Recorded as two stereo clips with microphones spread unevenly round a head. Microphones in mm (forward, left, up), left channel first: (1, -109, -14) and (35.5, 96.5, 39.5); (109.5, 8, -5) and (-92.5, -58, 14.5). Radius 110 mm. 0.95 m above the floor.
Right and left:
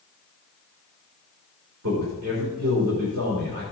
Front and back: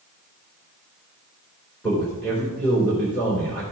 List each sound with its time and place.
1.8 s a man speaking: 100° left, 3 m